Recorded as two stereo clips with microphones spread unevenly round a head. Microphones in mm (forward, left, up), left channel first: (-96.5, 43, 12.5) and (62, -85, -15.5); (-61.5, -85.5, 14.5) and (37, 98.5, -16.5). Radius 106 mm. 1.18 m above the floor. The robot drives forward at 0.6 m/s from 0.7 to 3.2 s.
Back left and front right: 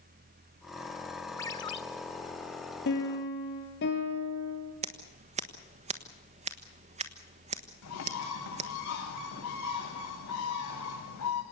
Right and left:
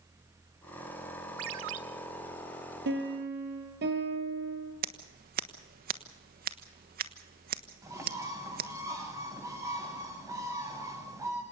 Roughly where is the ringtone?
Left.